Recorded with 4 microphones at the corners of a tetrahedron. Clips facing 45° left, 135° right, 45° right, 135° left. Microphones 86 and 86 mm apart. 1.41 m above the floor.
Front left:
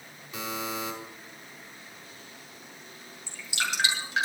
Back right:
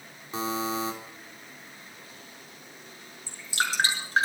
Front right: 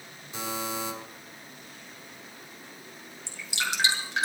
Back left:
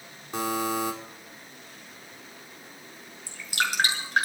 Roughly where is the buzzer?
Behind.